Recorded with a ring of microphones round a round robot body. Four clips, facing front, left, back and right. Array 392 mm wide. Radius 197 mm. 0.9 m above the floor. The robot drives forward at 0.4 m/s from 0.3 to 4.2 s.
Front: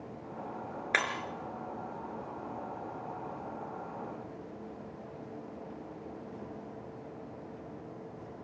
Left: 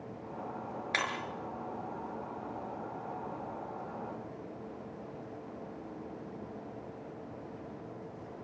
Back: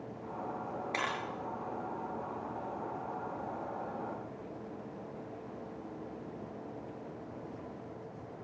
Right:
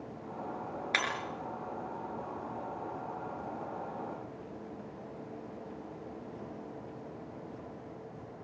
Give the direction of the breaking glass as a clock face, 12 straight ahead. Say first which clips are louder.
Right 1 dB, front 4 dB; 12 o'clock.